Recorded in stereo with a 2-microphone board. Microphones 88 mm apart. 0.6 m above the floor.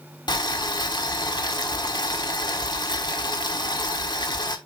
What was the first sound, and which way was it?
Boiling, 60° left (ahead or behind).